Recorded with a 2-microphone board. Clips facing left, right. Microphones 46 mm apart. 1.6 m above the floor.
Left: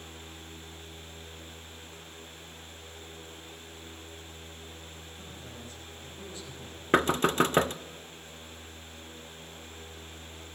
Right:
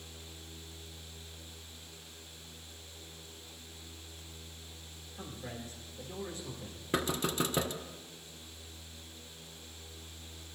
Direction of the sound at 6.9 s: 50° left (ahead or behind).